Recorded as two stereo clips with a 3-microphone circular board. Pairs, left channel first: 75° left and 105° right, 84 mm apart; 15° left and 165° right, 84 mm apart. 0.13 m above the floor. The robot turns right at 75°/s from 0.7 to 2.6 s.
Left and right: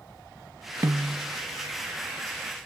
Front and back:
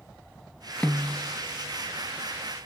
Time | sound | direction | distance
0.8 | a snare drum | 60° right | 0.7 m